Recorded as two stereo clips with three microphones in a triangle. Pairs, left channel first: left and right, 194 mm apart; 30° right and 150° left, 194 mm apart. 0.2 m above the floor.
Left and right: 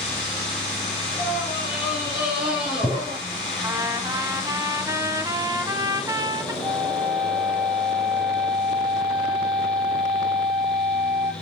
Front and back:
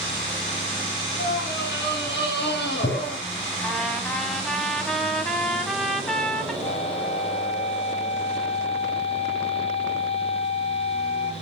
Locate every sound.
1.2 s a scream: 10° right, 2.5 m; by 3.2 s 5° right, 4.5 m
3.6 s a trumpet: 110° right, 1.5 m
6.6 s a flute: 10° right, 1.1 m